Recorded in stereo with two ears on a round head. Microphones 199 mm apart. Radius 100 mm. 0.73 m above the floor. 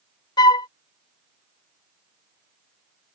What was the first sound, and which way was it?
A flute, 20° left (ahead or behind).